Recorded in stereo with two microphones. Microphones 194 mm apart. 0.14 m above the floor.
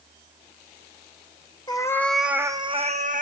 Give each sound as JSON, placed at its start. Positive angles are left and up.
{"t": 1.7, "sound": "a cat meowing", "side_deg": 25, "distance_m": 0.7}